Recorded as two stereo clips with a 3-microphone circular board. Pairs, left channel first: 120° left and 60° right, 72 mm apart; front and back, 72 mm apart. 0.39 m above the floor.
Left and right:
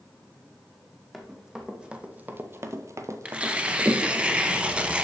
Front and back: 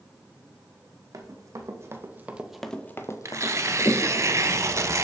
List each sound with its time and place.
1.1 s running footsteps: 145° right, 1.1 m; by 4.2 s straight ahead, 1.1 m
3.2 s tearing paper: 135° right, 0.5 m